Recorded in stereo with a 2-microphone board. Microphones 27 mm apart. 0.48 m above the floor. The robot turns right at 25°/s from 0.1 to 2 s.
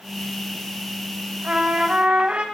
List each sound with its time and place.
1.4 s a trumpet: 55° right (ahead or behind), 3.5 m; by 2.5 s 45° right (ahead or behind), 3.5 m